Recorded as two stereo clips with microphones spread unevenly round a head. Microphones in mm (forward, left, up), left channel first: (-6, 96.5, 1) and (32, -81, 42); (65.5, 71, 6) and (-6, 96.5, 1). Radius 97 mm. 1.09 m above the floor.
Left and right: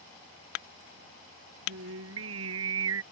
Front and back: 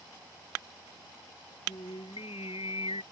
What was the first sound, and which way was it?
Singing, 70° right.